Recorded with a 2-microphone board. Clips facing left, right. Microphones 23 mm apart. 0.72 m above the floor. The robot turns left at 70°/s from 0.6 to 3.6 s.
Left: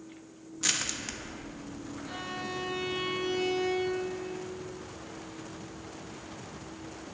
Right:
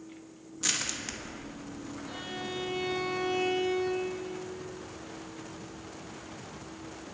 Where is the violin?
165° left, 5 m; by 4.1 s 60° left, 5 m.